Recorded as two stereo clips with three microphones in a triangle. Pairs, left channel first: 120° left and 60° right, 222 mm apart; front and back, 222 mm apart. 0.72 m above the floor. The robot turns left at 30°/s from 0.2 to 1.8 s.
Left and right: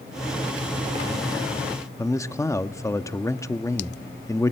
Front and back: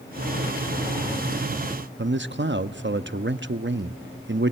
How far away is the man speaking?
About 0.7 m.